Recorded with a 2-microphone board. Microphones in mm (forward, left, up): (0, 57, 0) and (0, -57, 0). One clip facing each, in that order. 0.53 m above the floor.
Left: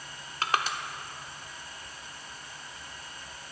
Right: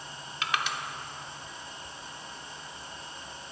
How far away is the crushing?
About 0.7 m.